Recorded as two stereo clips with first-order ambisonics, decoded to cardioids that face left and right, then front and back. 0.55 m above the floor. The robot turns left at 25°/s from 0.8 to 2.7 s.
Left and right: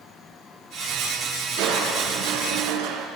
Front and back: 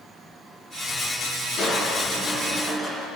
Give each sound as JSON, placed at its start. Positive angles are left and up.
{"t": 1.6, "sound": "crushing", "azimuth_deg": -50, "distance_m": 4.5}